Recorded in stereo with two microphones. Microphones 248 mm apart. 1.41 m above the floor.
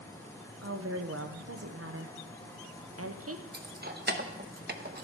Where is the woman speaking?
65° right (ahead or behind), 0.8 m.